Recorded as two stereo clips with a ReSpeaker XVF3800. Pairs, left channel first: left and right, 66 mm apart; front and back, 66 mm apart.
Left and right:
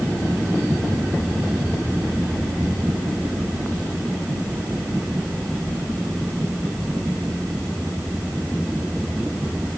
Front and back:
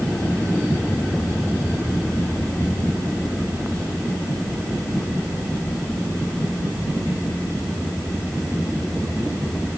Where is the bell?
No bell in this recording.